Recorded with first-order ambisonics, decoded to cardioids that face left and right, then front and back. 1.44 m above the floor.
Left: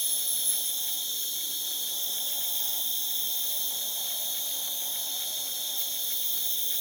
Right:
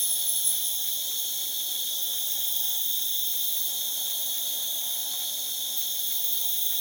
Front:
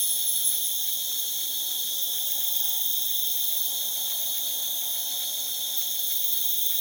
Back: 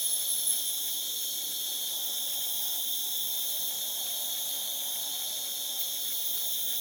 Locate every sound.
0.0 s an insect: 20° right, 1.7 m